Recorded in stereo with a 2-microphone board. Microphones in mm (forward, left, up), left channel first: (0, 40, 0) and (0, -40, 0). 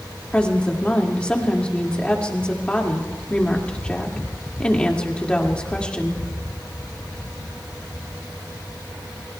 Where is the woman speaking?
15° left (ahead or behind), 1.9 m.